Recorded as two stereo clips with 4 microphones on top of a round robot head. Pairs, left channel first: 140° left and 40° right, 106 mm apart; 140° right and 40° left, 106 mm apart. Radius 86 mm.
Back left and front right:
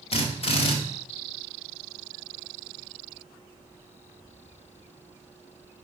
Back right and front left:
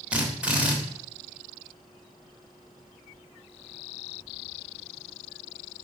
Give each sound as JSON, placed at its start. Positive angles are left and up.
{"t": 0.1, "sound": "a drill", "azimuth_deg": 120, "distance_m": 2.5}